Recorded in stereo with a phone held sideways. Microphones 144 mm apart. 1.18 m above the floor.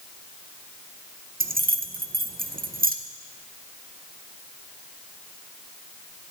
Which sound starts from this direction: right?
Keys jangling, at 1.4 s.